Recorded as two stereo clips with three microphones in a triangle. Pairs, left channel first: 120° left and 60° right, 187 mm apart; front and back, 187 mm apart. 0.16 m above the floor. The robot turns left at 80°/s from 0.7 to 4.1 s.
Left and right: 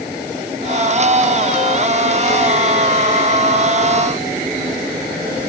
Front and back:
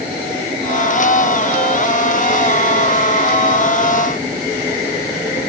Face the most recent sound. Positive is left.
No sound to turn to.